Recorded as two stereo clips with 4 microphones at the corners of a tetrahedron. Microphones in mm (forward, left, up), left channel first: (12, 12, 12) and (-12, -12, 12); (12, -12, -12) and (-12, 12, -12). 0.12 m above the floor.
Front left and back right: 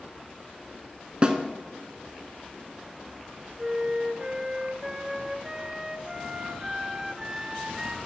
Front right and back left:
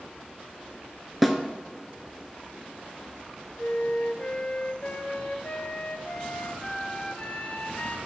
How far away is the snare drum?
About 0.8 m.